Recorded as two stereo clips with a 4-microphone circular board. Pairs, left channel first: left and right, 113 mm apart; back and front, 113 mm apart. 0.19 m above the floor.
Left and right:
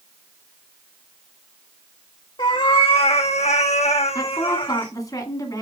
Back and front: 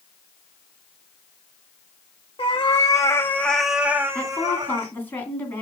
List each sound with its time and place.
2.4 s a cat meowing: 135° left, 1.3 m; by 4.9 s 45° left, 1.3 m
4.2 s a woman speaking: 120° left, 1.9 m